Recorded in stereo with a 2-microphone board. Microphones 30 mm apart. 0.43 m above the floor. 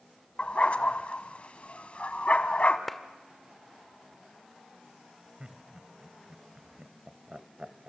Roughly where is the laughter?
Right.